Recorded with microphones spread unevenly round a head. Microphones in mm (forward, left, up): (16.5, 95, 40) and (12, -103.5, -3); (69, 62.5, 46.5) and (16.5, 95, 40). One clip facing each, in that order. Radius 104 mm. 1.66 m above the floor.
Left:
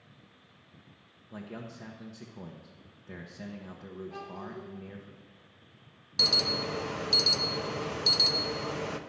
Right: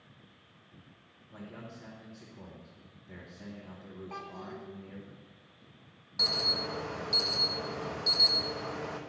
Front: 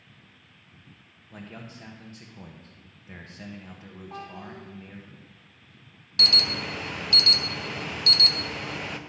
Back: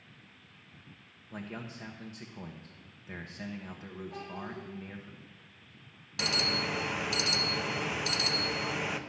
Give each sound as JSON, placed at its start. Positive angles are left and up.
{"t": 1.3, "sound": "a man speaking", "azimuth_deg": 70, "distance_m": 1.1}
{"t": 4.1, "sound": "a child speaking", "azimuth_deg": -75, "distance_m": 2.0}
{"t": 6.2, "sound": "an alarm", "azimuth_deg": 90, "distance_m": 0.7}